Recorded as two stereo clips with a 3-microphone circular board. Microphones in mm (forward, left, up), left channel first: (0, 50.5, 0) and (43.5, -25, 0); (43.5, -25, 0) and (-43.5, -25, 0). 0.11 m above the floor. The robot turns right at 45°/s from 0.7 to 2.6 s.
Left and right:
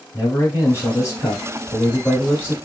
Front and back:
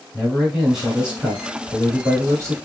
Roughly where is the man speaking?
Left.